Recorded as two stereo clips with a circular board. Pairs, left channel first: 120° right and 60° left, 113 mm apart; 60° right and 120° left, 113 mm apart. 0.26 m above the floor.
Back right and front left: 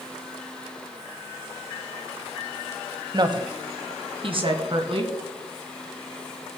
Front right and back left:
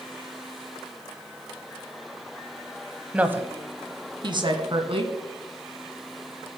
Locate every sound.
3.1 s a woman speaking: 45° left, 1.1 m; by 5.1 s 90° left, 2 m